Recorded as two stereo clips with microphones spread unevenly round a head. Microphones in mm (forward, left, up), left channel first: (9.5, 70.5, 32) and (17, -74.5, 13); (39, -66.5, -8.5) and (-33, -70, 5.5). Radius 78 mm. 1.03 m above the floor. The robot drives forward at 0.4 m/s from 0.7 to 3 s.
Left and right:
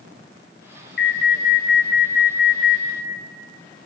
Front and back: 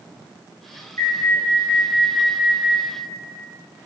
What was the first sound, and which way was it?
An alarm, 70° left.